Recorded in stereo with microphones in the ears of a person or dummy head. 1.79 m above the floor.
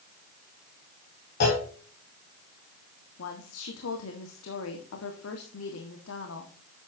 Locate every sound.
1.4 s a clunk: 55° left (ahead or behind), 5 m
3.2 s a woman speaking: 85° left, 1.8 m